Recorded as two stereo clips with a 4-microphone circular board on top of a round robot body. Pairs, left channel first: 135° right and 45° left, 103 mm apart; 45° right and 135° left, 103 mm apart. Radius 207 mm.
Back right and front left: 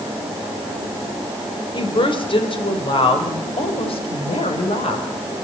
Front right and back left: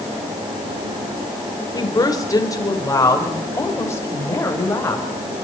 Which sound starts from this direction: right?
A woman speaking, at 1.7 s.